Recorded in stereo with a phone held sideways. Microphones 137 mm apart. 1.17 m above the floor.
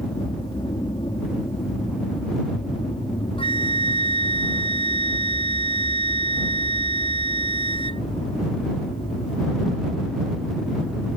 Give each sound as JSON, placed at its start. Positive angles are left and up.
{"t": 0.0, "sound": "an aircraft", "side_deg": 35}
{"t": 3.4, "sound": "a flute", "side_deg": 40}